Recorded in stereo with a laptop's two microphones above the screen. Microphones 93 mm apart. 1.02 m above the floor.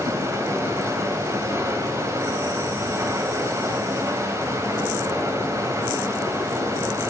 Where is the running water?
35° right (ahead or behind), 3.5 m.